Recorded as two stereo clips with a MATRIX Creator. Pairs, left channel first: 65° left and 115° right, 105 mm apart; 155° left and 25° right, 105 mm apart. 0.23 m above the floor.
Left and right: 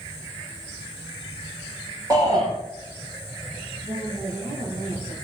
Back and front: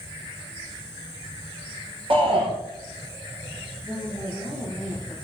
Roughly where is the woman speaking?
Right.